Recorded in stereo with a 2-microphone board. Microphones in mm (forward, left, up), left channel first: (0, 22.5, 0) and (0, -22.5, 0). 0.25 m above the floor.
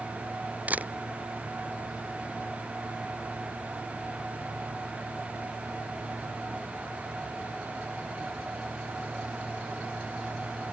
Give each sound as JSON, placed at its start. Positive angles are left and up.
{"t": 0.7, "sound": "a camera shutter", "side_deg": -35}